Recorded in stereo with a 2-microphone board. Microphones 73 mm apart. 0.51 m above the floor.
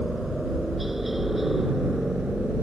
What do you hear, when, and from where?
0.0 s a helicopter: centre (ahead or behind); by 2.6 s 5° right (ahead or behind)